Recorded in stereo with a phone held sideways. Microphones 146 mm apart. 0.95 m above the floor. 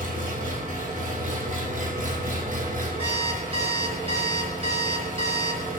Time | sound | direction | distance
0.0 | an engine running | 60° right (ahead or behind) | 2.5 m
3.0 | an alarm clock | 40° right (ahead or behind) | 2.5 m